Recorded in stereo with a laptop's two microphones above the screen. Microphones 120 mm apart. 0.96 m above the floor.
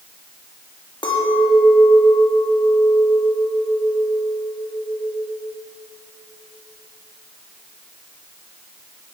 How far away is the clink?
About 1.4 m.